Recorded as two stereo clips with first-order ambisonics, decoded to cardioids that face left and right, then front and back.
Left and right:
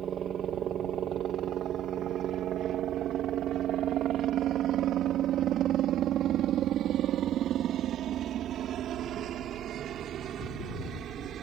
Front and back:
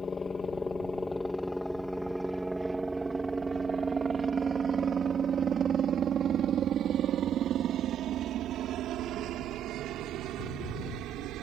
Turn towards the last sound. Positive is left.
turn(degrees=-145)